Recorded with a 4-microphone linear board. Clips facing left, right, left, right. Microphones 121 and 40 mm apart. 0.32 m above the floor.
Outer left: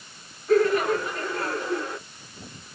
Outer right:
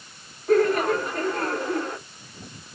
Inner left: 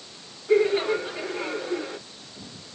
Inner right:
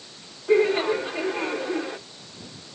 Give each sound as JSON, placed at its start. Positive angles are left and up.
{"t": 0.5, "sound": "laughter", "side_deg": -60, "distance_m": 2.5}